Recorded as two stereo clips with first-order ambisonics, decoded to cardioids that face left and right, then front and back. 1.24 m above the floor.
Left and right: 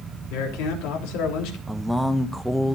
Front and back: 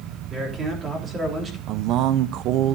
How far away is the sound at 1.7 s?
About 0.5 m.